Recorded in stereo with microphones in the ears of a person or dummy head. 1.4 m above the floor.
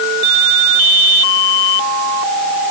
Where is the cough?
No cough in this recording.